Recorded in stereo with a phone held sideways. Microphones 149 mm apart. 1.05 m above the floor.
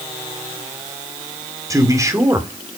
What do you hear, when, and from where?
1.7 s a man speaking: 20° right (ahead or behind), 2.5 m